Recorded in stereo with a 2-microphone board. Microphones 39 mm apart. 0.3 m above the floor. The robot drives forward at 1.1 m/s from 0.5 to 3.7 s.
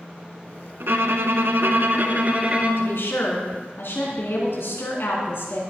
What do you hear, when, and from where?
0.8 s a violin: 65° right (ahead or behind), 1.3 m; by 3.0 s 30° right (ahead or behind), 2.5 m
2.8 s a woman speaking: 65° left (ahead or behind), 3 m; by 5.6 s 70° left (ahead or behind), 3 m